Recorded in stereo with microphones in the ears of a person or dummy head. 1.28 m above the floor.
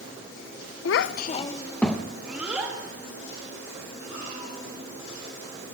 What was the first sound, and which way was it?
A child speaking, 70° left (ahead or behind).